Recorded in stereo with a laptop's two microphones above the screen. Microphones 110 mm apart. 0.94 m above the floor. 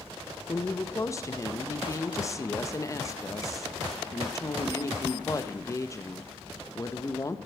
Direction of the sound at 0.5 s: 30° left (ahead or behind).